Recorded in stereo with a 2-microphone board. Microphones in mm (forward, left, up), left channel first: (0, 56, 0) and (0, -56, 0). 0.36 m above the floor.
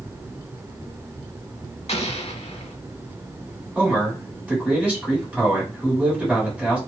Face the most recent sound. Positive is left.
turn(degrees=-10)  # may be behind; listen again after turning